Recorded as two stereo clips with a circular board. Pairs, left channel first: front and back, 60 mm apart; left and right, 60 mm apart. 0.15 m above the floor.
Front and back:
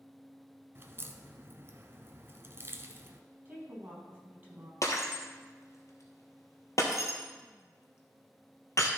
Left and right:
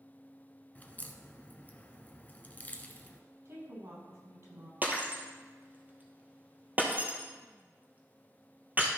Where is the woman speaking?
120° right, 4 m.